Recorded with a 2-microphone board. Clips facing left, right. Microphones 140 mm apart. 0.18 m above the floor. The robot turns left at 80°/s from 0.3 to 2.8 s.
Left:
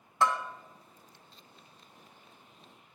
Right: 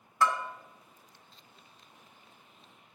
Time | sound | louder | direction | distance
0.2 | a bell | even | 25° left (ahead or behind) | 1.1 m